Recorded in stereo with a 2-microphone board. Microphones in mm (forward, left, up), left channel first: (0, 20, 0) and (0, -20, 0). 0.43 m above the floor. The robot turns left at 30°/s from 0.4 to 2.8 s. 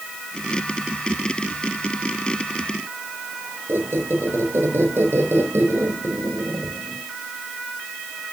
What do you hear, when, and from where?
3.7 s a squeak: 80° right, 2.5 m